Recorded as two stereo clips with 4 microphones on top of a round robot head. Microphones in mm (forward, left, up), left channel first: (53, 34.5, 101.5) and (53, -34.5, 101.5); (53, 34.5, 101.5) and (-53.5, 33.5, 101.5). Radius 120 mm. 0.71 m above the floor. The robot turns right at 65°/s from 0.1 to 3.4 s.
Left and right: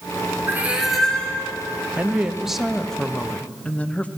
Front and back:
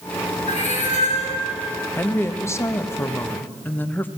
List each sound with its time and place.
0.5 s a cat meowing: 30° right, 3.5 m; by 1.4 s 30° left, 3.5 m
2.0 s a woman speaking: 45° right, 1.1 m; by 4.1 s 50° left, 1.1 m